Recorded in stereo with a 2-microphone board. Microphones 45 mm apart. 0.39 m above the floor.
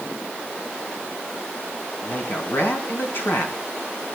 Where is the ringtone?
I don't hear a ringtone.